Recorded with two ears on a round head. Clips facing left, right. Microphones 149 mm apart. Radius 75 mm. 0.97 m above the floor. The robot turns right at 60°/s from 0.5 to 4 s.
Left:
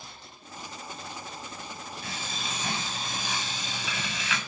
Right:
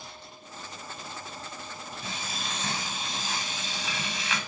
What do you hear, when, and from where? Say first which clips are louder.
2.0 s frying: right 1 dB; 25° right, 8 m; by 4.4 s 95° left, 8 m